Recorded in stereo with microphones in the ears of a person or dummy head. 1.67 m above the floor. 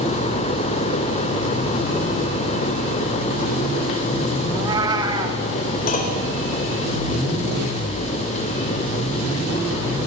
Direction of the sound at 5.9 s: 50° left (ahead or behind).